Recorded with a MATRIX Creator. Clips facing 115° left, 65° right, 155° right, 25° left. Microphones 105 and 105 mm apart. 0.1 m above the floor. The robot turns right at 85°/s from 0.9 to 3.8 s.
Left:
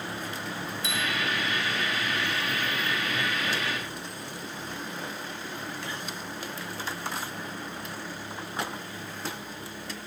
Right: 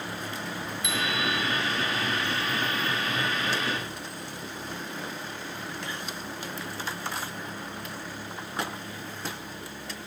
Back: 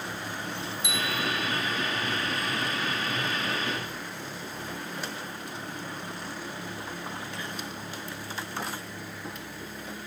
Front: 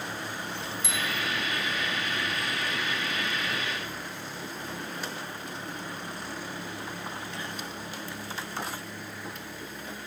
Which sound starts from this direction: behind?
A bicycle bell, at 0.8 s.